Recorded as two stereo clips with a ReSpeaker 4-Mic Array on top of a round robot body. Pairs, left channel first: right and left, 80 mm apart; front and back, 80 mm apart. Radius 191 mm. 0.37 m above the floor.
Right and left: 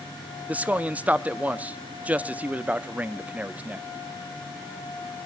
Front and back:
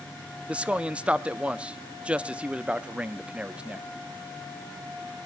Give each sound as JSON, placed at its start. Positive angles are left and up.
{"t": 0.5, "sound": "a man speaking", "azimuth_deg": 130, "distance_m": 1.0}